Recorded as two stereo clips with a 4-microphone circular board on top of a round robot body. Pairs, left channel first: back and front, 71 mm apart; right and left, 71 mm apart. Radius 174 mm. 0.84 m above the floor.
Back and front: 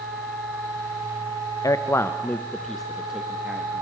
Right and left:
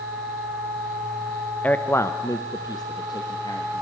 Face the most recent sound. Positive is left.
turn(degrees=-70)